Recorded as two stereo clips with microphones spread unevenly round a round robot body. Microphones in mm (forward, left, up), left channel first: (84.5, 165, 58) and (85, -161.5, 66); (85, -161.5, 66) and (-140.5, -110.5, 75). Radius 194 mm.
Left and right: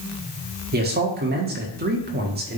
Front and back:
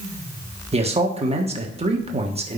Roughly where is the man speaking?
Behind right.